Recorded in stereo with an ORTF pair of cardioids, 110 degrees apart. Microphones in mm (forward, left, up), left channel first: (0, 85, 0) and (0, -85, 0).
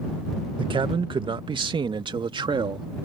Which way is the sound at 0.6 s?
30° right.